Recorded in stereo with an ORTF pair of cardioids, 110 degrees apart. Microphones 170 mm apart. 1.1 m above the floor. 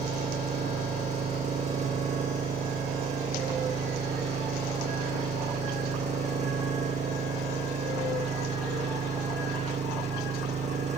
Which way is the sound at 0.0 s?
40° right.